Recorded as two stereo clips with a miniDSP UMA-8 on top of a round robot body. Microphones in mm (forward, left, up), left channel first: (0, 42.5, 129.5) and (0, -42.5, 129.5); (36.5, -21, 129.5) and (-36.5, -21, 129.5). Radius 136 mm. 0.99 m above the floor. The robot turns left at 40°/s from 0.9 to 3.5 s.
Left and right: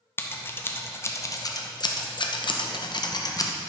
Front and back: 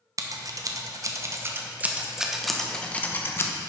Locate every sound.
0.2 s scissors: 150° left, 1.0 m; by 3.5 s 45° left, 1.0 m